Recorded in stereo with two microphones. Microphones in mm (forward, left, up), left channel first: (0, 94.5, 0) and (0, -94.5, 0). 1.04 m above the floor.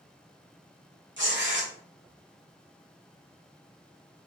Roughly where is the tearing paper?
Right.